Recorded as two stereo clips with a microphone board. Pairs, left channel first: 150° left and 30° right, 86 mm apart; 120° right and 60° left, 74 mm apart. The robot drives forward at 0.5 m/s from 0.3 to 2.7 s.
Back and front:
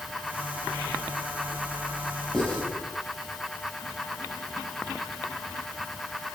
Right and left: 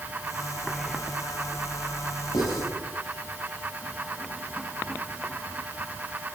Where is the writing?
130° right, 5 m.